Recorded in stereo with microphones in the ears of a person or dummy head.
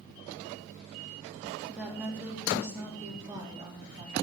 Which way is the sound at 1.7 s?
5° right (ahead or behind).